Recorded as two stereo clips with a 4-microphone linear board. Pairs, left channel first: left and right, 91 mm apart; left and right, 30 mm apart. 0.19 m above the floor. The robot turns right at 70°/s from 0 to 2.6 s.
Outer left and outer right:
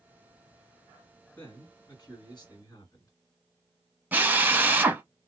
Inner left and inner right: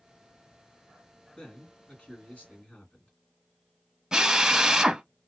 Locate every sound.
1.4 s a man speaking: 25° left, 1.8 m; by 3.1 s 115° left, 1.8 m
4.1 s a drill: 20° right (ahead or behind), 0.6 m